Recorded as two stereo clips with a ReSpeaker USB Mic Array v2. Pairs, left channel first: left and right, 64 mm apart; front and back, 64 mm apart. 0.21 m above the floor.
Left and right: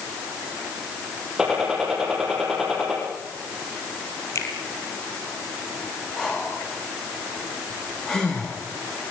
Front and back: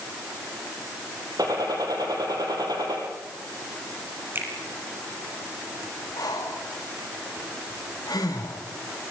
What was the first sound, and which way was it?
A gunshot, 175° right.